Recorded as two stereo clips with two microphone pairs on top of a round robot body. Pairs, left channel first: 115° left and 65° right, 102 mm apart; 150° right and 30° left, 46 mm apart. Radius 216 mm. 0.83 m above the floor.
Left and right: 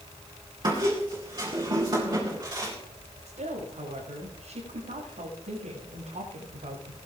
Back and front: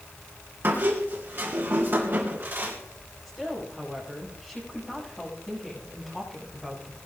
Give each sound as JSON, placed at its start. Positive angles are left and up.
{"t": 0.6, "sound": "a squeak", "azimuth_deg": -10, "distance_m": 2.5}
{"t": 3.2, "sound": "a woman speaking", "azimuth_deg": -65, "distance_m": 7.5}